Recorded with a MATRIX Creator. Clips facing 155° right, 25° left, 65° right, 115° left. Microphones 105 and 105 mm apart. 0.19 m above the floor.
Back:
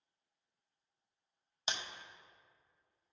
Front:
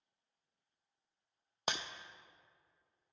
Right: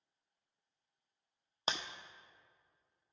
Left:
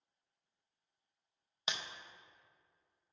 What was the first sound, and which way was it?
Breaking glass, 15° right.